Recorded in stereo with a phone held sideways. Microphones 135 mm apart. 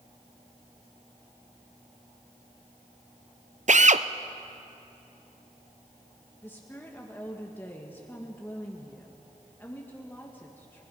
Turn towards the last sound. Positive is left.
turn(degrees=15)  # may be behind; listen again after turning